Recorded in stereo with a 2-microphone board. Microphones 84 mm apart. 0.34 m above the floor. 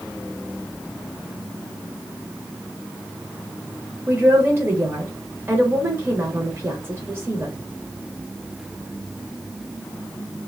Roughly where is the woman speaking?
Right.